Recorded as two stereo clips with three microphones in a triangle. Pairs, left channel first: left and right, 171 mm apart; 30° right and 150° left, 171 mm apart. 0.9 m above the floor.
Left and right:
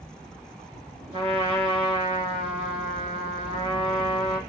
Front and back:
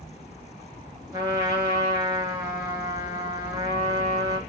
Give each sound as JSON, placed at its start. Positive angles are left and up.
{"t": 1.1, "sound": "a trumpet", "azimuth_deg": -145, "distance_m": 2.0}